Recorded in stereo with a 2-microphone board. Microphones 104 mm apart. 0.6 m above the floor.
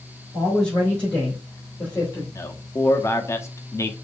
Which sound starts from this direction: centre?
A man speaking, at 0.3 s.